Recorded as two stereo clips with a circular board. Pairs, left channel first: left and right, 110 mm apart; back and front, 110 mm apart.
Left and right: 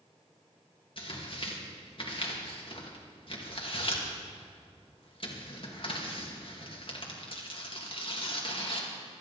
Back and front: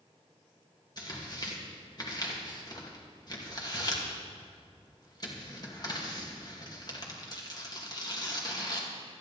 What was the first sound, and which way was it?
Tearing paper, 130° left.